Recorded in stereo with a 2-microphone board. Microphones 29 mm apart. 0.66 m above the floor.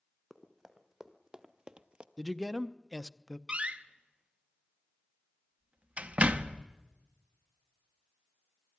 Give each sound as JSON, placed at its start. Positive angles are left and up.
{"t": 0.3, "sound": "running footsteps", "side_deg": 0, "distance_m": 2.0}
{"t": 2.2, "sound": "a man speaking", "side_deg": 0, "distance_m": 0.5}
{"t": 3.5, "sound": "a door slam", "side_deg": -45, "distance_m": 0.8}